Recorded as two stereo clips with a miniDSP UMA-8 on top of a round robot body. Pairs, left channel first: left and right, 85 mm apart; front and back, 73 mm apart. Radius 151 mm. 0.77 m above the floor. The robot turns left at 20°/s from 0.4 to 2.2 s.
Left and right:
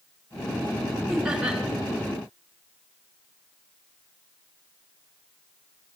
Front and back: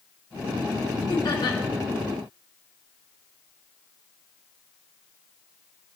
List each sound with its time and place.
1.1 s laughter: 5° right, 3 m; by 1.6 s 15° right, 3 m